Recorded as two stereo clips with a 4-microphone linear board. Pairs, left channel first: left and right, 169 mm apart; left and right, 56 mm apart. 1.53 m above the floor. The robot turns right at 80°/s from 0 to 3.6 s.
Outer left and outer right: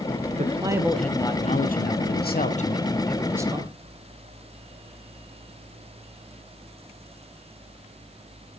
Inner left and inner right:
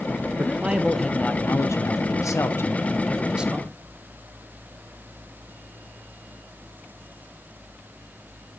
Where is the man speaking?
45° right, 0.8 m; by 3.8 s 150° right, 0.8 m.